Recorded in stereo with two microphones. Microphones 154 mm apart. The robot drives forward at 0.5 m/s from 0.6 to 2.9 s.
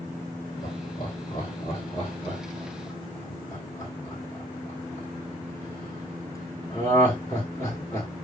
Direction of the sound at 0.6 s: 40° left (ahead or behind).